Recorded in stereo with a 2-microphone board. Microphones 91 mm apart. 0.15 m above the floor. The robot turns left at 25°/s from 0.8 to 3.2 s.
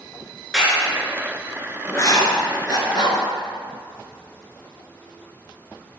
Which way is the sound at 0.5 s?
Centre (ahead or behind).